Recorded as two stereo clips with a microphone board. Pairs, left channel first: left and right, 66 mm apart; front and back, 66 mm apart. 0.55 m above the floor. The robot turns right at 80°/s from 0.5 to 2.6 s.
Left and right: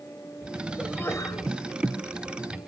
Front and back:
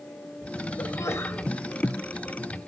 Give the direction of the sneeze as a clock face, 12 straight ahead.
11 o'clock.